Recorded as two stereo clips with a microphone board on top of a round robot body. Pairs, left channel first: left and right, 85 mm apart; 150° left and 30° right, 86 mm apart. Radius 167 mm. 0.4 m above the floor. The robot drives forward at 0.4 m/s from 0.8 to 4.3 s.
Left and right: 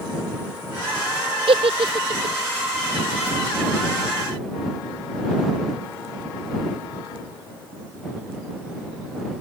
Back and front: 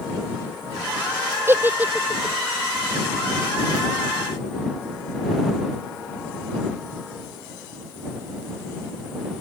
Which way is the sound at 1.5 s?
95° right.